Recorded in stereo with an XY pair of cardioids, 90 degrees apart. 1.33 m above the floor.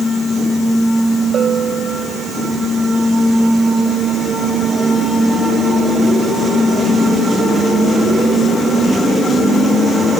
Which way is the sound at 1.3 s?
55° right.